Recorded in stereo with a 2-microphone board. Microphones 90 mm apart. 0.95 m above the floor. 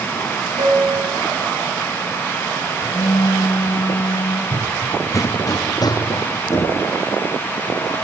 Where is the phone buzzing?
75° left (ahead or behind), 4.5 m.